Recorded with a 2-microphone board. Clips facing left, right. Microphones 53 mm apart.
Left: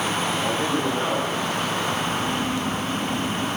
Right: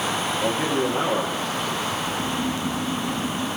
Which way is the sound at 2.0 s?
35° right (ahead or behind).